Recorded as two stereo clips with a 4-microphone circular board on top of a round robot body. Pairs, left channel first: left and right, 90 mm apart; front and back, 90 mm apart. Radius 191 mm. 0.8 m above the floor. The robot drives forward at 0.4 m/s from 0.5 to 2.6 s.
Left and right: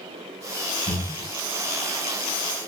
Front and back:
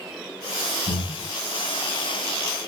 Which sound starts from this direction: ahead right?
Breathing, at 0.9 s.